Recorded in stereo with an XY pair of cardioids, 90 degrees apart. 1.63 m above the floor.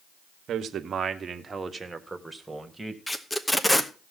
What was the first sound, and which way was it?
A man speaking, 70° right.